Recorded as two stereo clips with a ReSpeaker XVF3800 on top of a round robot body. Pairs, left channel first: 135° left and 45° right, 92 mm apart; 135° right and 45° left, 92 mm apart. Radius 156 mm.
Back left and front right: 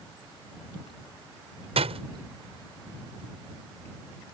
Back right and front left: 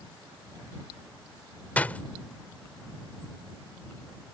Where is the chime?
I don't hear a chime.